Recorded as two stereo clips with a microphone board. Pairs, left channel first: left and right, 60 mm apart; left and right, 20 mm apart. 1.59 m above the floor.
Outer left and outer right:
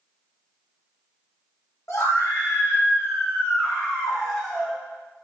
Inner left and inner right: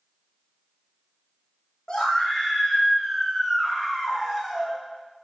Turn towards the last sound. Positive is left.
turn(degrees=0)  # may be behind; listen again after turning